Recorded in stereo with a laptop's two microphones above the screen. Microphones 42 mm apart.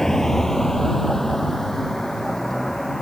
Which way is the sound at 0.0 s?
10° left (ahead or behind).